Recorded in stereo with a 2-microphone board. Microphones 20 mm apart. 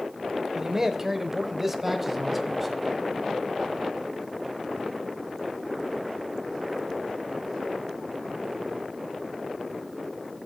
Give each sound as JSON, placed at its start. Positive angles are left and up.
{"t": 0.6, "sound": "a man speaking", "side_deg": -25, "distance_m": 0.9}